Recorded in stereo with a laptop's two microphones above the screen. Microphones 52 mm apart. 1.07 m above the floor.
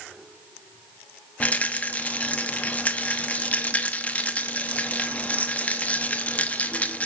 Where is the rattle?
25° left (ahead or behind), 0.7 m.